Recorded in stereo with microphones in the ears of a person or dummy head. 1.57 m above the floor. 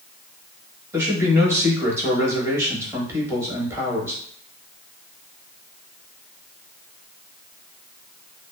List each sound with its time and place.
0.9 s a man speaking: 15° right (ahead or behind), 1.2 m